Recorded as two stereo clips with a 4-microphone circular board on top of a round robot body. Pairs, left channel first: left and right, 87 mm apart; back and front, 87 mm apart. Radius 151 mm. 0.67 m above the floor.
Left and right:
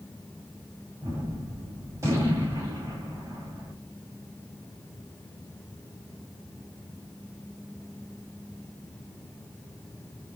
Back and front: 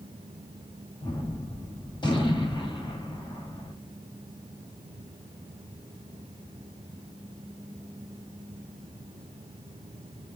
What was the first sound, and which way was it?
A gunshot, 145° right.